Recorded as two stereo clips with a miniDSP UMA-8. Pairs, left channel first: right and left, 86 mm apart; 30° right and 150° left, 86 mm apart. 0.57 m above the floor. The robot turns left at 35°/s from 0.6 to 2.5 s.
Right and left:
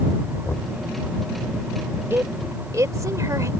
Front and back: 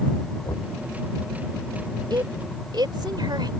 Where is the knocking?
40° right; by 0.8 s 45° right.